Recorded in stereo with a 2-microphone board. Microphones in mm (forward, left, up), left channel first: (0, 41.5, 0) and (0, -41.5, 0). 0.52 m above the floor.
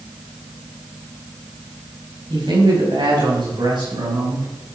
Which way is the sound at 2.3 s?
65° right (ahead or behind).